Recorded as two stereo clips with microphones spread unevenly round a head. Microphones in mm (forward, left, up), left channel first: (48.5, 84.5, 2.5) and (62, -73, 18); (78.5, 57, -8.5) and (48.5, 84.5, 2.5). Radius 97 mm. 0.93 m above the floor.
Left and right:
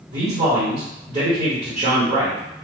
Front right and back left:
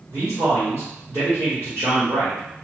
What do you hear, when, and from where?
0.1 s a man speaking: 140° right, 0.8 m